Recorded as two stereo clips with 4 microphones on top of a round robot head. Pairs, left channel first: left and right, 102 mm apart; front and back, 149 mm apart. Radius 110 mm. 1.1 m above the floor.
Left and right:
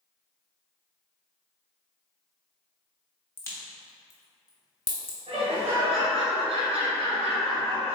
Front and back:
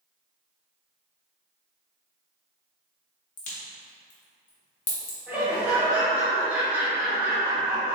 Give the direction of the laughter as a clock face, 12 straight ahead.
3 o'clock.